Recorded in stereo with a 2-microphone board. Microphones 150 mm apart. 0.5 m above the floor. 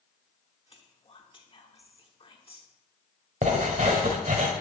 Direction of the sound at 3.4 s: 55° right (ahead or behind).